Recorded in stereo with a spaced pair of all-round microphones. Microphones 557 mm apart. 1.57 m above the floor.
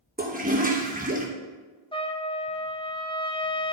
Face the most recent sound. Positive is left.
turn(degrees=10)  # may be behind; listen again after turning